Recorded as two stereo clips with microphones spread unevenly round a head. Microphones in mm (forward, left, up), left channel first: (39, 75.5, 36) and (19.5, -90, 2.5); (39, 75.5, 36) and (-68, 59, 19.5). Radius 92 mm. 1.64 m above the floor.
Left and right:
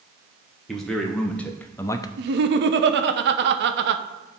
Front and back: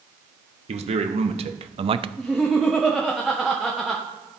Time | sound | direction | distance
0.7 | a man speaking | 170° left | 1.4 m
2.2 | laughter | 80° right | 1.0 m